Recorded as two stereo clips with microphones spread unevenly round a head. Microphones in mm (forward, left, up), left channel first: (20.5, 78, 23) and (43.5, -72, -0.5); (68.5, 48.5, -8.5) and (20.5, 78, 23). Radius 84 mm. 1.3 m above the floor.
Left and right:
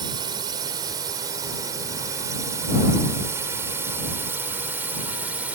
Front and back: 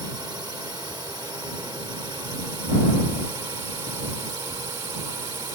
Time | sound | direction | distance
0.0 | a drone | 145° right | ?